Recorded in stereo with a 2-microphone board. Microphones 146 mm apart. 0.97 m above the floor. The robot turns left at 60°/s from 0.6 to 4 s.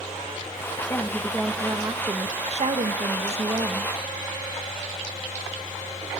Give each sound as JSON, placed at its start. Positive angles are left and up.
{"t": 0.9, "sound": "a woman speaking", "azimuth_deg": 30, "distance_m": 1.2}